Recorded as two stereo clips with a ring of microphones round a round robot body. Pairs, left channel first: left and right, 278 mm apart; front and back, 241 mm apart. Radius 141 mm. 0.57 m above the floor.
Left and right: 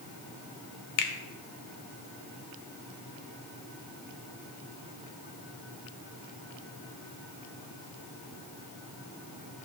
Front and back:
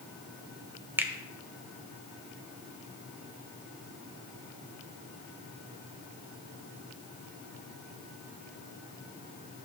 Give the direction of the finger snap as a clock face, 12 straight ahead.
9 o'clock.